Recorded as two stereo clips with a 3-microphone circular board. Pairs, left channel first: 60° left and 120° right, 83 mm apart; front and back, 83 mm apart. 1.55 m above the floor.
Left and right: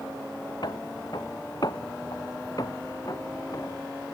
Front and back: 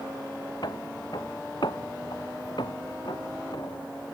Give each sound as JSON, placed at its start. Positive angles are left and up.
{"t": 0.6, "sound": "footsteps", "azimuth_deg": 30}